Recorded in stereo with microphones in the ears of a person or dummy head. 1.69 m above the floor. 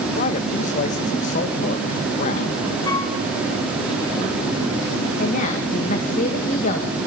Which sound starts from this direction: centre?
A flute, at 2.9 s.